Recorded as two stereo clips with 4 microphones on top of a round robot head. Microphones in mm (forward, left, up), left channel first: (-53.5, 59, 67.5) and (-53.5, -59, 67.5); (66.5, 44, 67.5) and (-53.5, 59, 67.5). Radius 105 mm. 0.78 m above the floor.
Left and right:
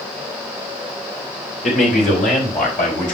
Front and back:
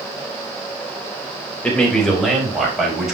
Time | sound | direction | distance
1.6 | a man speaking | 75° left | 3.5 m